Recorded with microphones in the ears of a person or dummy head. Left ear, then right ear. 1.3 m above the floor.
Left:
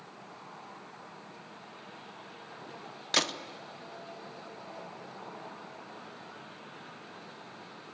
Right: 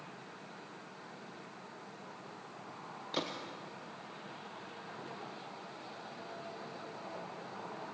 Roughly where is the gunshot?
Left.